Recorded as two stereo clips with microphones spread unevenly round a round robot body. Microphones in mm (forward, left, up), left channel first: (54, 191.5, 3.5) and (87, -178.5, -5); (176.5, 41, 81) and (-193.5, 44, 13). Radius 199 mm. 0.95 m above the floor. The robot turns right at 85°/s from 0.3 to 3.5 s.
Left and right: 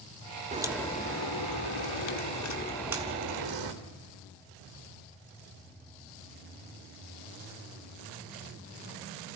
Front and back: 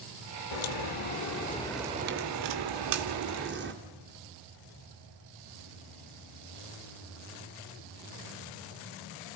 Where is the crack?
15° right, 2 m; by 3.7 s 120° right, 2 m.